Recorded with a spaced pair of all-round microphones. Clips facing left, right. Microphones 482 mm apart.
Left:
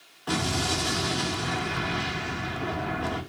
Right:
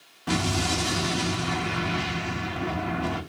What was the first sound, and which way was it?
An explosion, 45° right (ahead or behind).